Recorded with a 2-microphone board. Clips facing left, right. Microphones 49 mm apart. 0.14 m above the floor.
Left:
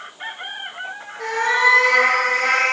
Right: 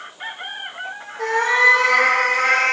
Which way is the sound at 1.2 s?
55° right (ahead or behind).